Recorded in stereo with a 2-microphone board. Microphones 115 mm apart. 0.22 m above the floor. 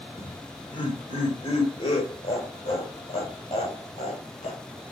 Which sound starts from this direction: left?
Laughter, at 0.2 s.